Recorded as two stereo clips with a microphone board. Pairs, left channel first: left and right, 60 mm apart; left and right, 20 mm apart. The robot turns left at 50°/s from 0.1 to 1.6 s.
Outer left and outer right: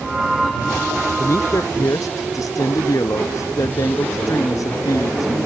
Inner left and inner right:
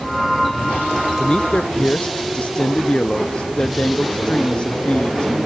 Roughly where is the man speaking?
Left.